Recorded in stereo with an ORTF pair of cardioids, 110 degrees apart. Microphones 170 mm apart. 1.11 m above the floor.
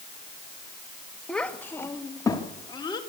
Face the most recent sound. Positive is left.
turn(degrees=25)